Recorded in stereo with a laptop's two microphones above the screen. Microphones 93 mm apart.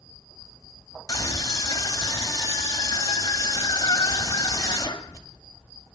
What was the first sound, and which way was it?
A scream, 35° left (ahead or behind).